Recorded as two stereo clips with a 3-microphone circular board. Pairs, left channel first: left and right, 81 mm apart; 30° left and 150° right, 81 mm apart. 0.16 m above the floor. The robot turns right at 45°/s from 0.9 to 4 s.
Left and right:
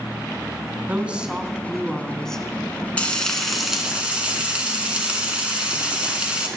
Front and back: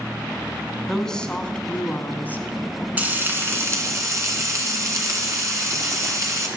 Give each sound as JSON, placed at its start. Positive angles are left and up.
{"t": 0.9, "sound": "a woman speaking", "azimuth_deg": -45, "distance_m": 1.2}
{"t": 3.0, "sound": "frying", "azimuth_deg": 155, "distance_m": 1.9}